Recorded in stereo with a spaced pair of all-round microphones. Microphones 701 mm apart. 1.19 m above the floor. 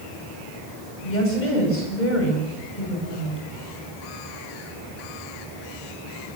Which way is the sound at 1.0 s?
80° left.